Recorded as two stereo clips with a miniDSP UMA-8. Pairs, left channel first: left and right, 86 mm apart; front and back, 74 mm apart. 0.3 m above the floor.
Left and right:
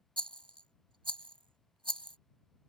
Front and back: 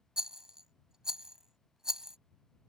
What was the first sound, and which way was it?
A rattle, 100° right.